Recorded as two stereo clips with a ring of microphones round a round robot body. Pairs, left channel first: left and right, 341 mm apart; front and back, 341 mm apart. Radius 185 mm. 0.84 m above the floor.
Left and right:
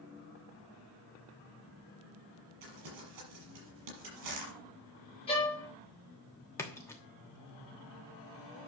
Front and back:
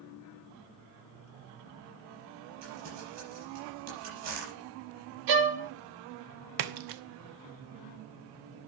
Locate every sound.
2.6 s crumpling: 130° right, 6 m
5.3 s a violin: 165° left, 1.6 m
6.6 s a splash: 175° left, 1.0 m